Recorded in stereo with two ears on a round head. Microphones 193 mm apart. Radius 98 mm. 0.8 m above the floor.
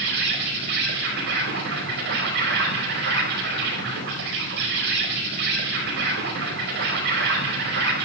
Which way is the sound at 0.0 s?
55° right (ahead or behind).